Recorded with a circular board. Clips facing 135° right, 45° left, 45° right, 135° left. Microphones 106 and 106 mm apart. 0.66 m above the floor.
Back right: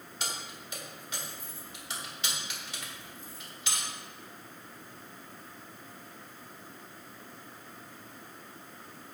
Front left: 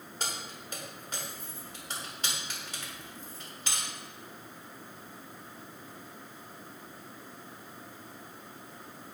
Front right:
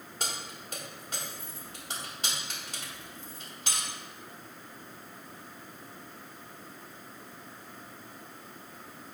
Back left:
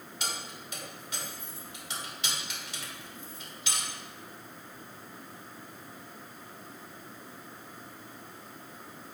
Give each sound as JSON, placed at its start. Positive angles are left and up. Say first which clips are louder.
{"t": 0.2, "sound": "keys jangling", "louder": "front left 1 dB, even", "azimuth_deg": 0, "distance_m": 1.7}